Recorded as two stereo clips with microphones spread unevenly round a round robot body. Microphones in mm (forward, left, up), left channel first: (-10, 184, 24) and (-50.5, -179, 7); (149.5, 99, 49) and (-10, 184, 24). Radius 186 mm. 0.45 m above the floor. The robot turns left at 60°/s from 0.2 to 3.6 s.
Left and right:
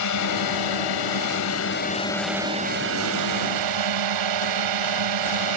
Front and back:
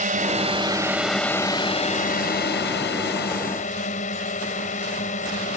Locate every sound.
0.0 s a drone: 120° left; by 5.6 s 85° right